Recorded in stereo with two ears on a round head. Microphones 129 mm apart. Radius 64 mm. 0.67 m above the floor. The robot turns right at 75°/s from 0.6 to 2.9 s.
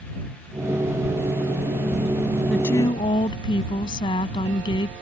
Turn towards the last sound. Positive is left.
turn(degrees=35)